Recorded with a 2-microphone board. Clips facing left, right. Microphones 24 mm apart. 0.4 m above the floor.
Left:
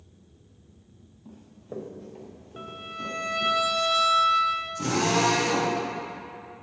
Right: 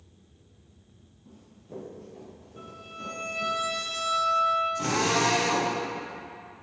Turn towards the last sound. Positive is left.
turn(degrees=-25)  # may be behind; listen again after turning